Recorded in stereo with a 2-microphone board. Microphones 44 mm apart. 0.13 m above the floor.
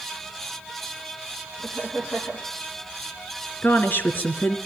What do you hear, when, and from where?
1.6 s laughter: 20° right (ahead or behind), 4.5 m
3.6 s a woman speaking: 45° left (ahead or behind), 2 m